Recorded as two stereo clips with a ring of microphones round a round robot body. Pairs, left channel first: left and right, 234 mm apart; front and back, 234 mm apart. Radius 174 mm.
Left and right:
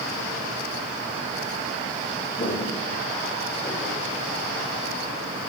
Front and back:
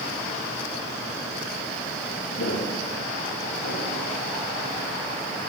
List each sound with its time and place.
2.4 s footsteps: 35° left, 6.5 m; by 4.0 s 25° left, 6.5 m